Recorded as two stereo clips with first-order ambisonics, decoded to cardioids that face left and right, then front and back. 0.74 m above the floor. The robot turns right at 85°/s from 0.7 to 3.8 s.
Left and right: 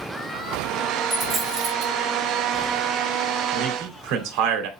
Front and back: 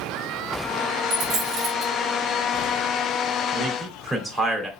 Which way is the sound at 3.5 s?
115° right.